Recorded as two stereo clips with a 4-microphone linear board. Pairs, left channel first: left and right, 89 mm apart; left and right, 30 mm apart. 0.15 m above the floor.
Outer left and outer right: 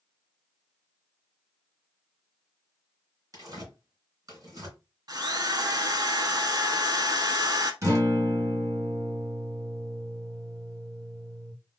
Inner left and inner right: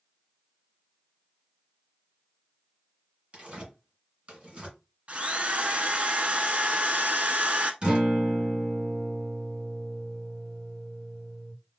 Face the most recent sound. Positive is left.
turn(degrees=-35)  # may be behind; listen again after turning